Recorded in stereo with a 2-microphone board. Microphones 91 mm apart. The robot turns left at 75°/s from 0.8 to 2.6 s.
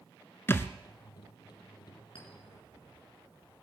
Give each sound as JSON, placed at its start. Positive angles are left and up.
{"t": 0.5, "sound": "a thud", "side_deg": 25, "distance_m": 0.9}
{"t": 2.1, "sound": "a clink", "side_deg": 85, "distance_m": 4.5}